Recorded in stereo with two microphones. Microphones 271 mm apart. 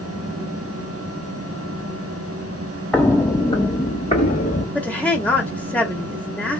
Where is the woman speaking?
5° left (ahead or behind), 1.4 m.